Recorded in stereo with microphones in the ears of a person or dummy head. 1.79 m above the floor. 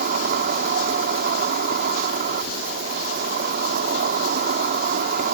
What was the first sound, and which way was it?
An insect, 55° right (ahead or behind).